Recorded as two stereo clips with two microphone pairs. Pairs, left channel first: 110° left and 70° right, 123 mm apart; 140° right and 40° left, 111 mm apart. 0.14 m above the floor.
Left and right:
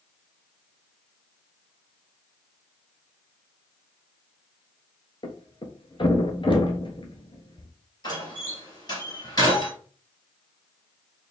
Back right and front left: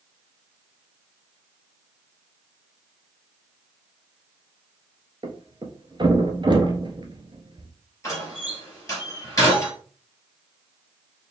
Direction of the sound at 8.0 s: 160° left.